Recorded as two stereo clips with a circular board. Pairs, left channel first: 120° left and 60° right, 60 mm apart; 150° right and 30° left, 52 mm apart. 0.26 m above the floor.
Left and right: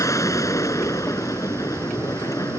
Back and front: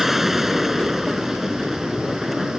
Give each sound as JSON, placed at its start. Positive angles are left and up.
{"t": 0.0, "sound": "an aircraft", "azimuth_deg": 115}